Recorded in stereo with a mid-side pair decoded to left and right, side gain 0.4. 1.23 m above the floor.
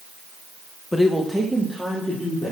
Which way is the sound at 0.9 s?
15° left.